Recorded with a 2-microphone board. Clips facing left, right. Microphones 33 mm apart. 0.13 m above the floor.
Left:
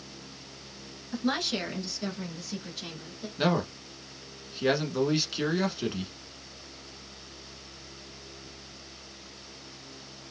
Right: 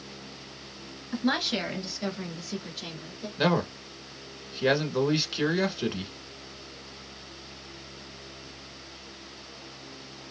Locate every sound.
1.1 s a woman speaking: 15° right (ahead or behind), 1.6 m; by 3.3 s centre (ahead or behind), 1.6 m
3.4 s a man speaking: 5° right (ahead or behind), 1.1 m